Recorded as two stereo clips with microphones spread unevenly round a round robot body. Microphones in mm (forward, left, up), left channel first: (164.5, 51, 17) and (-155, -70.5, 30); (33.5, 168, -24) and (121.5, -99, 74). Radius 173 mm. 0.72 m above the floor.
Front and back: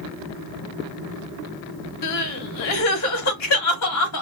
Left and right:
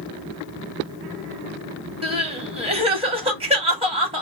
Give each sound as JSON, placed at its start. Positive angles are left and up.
{"t": 2.0, "sound": "crying", "azimuth_deg": 10, "distance_m": 1.1}